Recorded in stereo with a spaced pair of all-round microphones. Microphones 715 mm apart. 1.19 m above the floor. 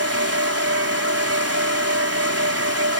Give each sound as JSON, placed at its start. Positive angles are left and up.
{"t": 0.0, "sound": "a fan", "side_deg": -20}